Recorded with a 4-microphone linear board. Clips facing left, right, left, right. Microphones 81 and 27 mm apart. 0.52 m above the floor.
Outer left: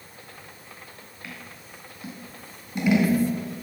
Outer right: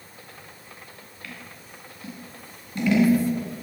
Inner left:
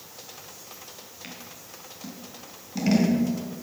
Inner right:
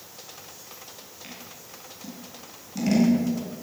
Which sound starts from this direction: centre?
Scissors, at 1.2 s.